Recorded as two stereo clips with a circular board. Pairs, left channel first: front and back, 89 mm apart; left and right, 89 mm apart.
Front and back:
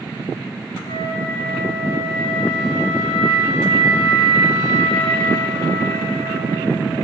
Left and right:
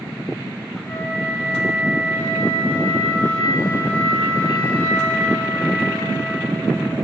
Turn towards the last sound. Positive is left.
turn(degrees=5)